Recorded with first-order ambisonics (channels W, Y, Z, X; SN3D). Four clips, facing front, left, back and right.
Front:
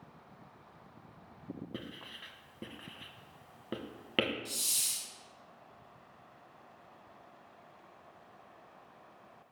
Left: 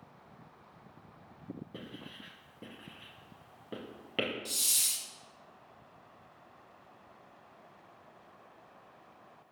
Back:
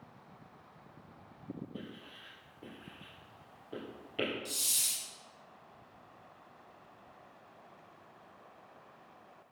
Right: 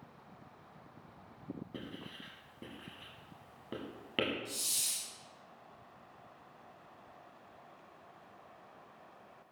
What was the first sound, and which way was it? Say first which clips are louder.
Writing: even, front 2 dB; 5° right.